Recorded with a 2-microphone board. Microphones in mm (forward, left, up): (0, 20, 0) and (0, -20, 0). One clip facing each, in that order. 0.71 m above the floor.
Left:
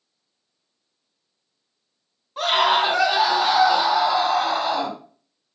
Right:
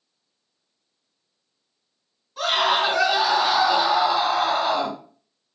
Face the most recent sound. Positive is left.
turn(degrees=-35)  # may be behind; listen again after turning